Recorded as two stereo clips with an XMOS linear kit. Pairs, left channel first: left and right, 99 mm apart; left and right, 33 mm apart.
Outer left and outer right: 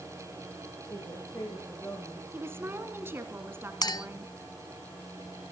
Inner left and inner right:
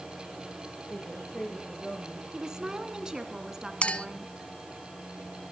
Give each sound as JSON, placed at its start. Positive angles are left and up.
{"t": 0.9, "sound": "a woman speaking", "side_deg": 30, "distance_m": 5.5}
{"t": 2.3, "sound": "a woman speaking", "side_deg": -25, "distance_m": 1.8}
{"t": 3.8, "sound": "a clink", "side_deg": 40, "distance_m": 0.8}